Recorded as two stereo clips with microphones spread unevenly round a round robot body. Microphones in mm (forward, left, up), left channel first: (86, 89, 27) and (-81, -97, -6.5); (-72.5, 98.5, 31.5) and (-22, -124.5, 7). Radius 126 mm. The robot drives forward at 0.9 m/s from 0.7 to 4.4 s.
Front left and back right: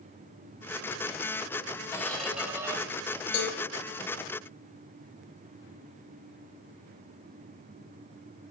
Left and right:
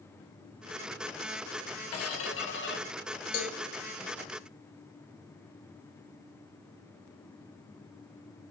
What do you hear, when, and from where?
1.9 s a squeak: 130° left, 1.2 m; by 2.8 s 150° left, 1.9 m
3.3 s a cowbell: 75° left, 1.9 m; by 3.6 s 80° left, 1.9 m